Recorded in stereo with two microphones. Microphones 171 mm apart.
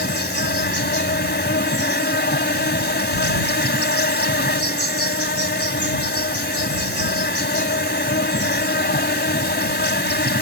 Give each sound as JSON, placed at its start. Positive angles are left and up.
{"t": 0.0, "sound": "an insect", "side_deg": 90}